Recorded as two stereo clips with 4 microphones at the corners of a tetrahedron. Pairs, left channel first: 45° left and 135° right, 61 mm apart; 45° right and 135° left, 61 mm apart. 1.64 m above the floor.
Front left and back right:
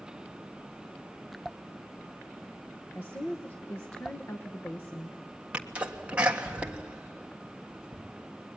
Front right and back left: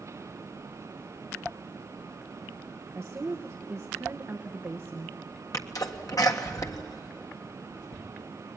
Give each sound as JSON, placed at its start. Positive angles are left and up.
{"t": 3.0, "sound": "a woman speaking", "azimuth_deg": 95, "distance_m": 1.2}
{"t": 5.5, "sound": "a sneeze", "azimuth_deg": -65, "distance_m": 1.6}